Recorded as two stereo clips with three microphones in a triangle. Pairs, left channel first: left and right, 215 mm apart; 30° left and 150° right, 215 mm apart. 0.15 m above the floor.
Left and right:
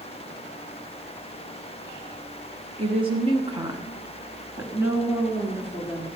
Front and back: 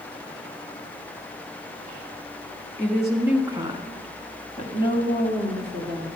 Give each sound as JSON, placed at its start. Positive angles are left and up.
{"t": 2.8, "sound": "a woman speaking", "azimuth_deg": -50, "distance_m": 1.4}